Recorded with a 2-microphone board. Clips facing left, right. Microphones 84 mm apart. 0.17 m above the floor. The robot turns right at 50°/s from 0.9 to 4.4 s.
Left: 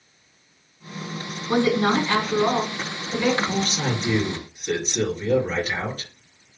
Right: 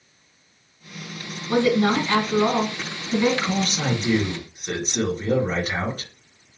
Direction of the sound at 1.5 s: 135° left.